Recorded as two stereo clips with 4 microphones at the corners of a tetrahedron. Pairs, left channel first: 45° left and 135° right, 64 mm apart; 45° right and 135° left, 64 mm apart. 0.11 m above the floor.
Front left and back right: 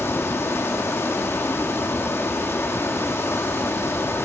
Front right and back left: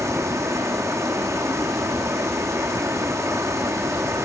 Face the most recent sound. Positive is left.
turn(degrees=100)